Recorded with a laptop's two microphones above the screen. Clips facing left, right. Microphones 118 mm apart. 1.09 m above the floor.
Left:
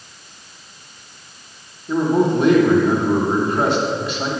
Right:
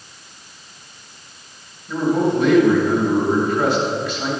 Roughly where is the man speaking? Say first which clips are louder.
Left 2 dB; left.